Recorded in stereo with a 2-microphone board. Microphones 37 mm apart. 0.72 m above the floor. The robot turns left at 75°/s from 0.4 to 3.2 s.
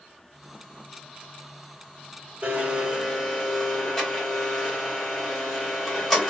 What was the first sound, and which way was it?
A blender, 135° right.